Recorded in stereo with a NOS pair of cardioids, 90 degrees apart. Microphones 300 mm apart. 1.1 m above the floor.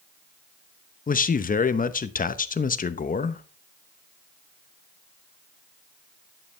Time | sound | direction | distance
1.1 | a man speaking | 25° left | 0.9 m